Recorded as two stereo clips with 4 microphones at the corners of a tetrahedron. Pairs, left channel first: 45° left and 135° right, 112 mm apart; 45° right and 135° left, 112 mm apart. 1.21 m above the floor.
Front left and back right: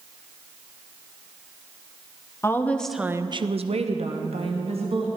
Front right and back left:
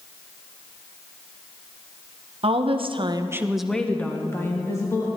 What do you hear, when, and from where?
2.4 s a woman speaking: 110° left, 0.9 m; by 5.1 s 105° right, 1.9 m